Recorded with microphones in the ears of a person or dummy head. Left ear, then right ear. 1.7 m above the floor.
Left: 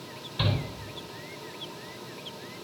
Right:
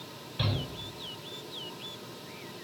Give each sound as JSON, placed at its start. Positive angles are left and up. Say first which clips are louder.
{"t": 0.4, "sound": "a shout", "louder": "left 3 dB", "side_deg": 5, "distance_m": 6.5}